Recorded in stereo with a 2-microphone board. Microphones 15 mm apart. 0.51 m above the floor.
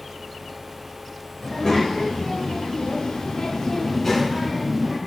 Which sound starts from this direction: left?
A child speaking, at 1.4 s.